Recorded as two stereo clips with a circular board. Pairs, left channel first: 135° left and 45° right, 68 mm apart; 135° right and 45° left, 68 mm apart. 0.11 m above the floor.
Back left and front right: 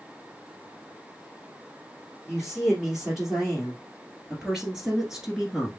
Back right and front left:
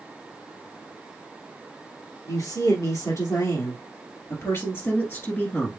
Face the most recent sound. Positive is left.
turn(degrees=-115)